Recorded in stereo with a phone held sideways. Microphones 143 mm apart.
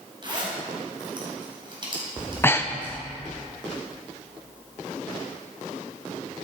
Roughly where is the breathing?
Centre.